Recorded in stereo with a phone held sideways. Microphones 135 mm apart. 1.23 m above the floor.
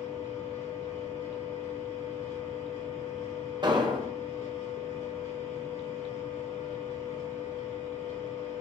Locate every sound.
0.0 s a machine running: 70° left (ahead or behind), 2.0 m
3.6 s an explosion: 35° right (ahead or behind), 0.5 m